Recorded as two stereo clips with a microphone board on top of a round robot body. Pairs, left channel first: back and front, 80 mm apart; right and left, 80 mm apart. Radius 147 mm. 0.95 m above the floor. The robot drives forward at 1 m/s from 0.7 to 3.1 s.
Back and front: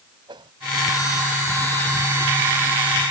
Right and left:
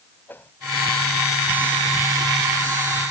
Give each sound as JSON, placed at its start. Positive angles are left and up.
{"t": 0.3, "sound": "a whoosh", "azimuth_deg": -25}